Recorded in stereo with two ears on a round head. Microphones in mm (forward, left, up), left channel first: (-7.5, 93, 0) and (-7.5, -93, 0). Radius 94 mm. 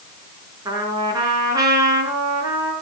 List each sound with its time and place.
0.7 s a trumpet: 20° right (ahead or behind), 5 m